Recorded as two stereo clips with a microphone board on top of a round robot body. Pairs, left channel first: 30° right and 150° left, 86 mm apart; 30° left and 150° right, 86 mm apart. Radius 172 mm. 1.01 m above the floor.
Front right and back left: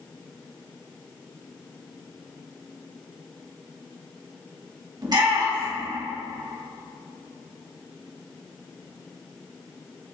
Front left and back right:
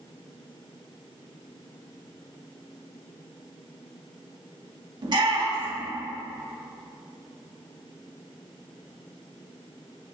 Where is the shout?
175° right, 2.5 m.